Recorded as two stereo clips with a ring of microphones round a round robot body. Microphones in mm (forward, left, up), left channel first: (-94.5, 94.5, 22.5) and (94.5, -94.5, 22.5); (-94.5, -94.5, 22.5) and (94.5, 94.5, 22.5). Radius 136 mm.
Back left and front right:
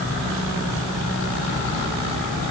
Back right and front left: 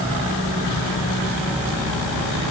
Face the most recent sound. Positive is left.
No sound to turn to.